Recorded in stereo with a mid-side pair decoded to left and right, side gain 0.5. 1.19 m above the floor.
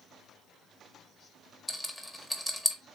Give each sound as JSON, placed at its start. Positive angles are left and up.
{"t": 1.7, "sound": "a rattle", "azimuth_deg": 15, "distance_m": 1.1}